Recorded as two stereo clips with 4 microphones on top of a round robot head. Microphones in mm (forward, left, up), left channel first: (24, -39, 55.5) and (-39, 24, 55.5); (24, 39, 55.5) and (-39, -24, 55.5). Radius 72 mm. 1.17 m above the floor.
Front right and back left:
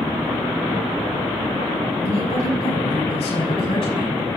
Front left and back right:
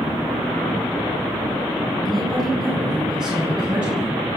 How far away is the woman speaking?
About 9.5 m.